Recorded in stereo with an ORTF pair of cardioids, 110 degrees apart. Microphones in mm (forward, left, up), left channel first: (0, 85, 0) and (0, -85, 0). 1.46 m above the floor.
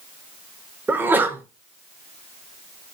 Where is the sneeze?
10° right, 0.6 m.